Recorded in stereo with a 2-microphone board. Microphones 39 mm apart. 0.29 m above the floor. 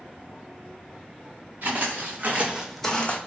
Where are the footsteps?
70° right (ahead or behind), 1.3 m; by 3.2 s 40° left (ahead or behind), 0.7 m.